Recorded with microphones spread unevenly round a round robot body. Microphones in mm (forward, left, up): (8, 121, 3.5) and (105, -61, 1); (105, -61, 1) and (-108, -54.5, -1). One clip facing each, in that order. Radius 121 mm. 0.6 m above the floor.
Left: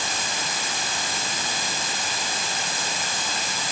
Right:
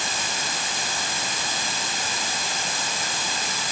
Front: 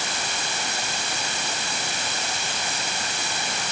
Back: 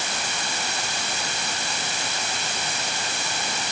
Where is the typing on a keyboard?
No typing on a keyboard in this recording.